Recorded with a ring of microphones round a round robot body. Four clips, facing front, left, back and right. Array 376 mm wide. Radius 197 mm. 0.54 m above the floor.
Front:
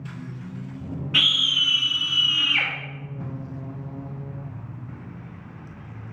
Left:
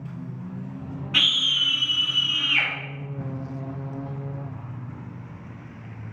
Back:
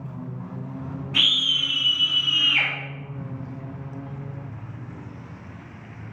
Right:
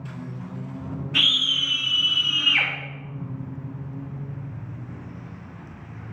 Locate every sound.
1.1 s a scream: 55° left, 1.6 m; by 2.7 s 80° right, 0.8 m